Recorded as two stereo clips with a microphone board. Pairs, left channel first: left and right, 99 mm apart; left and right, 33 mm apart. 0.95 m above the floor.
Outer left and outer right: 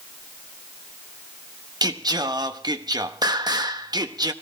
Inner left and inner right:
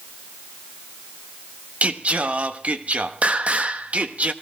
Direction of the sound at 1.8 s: 40° right (ahead or behind).